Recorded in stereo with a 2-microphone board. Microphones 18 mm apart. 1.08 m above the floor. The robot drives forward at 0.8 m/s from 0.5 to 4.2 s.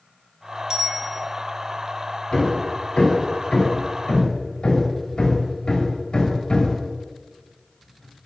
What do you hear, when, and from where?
0.7 s a bicycle bell: 50° right (ahead or behind), 4 m
2.3 s hammering: 80° left, 4.5 m; by 8.3 s 65° left (ahead or behind), 5 m